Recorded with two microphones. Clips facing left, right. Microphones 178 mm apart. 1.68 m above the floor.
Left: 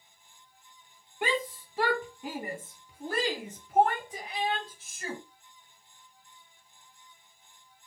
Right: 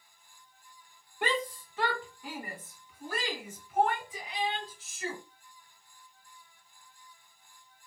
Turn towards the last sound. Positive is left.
turn(degrees=70)  # may be behind; listen again after turning